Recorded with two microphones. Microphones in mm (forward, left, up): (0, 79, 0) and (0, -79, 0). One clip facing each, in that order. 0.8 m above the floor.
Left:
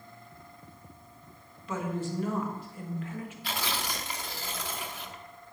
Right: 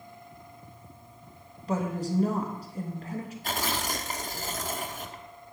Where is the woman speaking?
40° right (ahead or behind), 1.3 m.